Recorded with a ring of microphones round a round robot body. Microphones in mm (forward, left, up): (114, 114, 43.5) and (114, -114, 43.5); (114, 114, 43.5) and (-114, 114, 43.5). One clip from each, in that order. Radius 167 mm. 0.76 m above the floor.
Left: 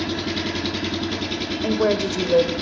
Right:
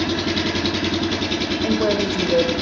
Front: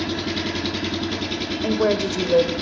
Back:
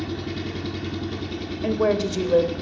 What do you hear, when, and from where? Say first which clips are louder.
0.0 s an engine running: right 4 dB, front 6 dB; 5° right, 1.5 m
1.6 s a woman speaking: left 1 dB, front 1 dB; 65° left, 4 m